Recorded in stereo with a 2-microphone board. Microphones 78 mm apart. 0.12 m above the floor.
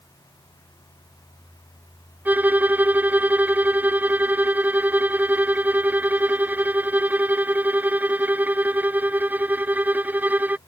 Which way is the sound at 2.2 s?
25° right (ahead or behind).